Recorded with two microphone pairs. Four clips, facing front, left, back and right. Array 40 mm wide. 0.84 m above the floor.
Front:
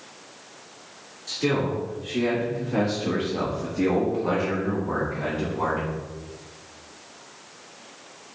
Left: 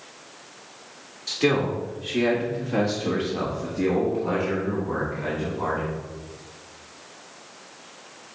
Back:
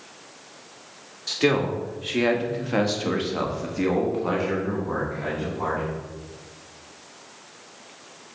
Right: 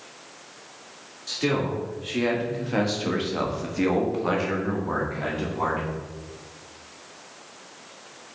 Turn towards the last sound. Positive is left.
turn(degrees=-80)